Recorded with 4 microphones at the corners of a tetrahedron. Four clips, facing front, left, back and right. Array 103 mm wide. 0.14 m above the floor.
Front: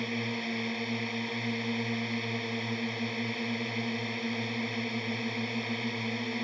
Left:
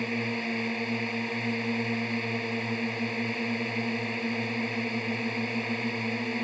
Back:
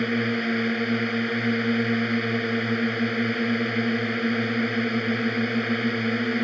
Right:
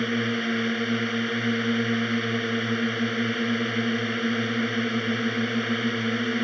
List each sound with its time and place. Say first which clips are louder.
0.0 s a drone: right 5 dB, back 10 dB; 145° right